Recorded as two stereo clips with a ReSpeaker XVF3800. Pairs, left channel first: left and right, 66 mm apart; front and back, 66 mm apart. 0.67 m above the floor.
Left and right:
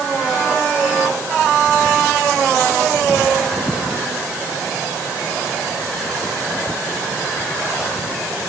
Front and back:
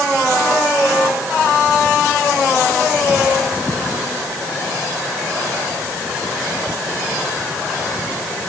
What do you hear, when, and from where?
Only background noise.